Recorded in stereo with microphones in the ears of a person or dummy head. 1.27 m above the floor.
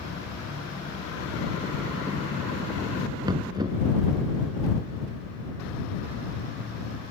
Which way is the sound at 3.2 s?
20° right (ahead or behind).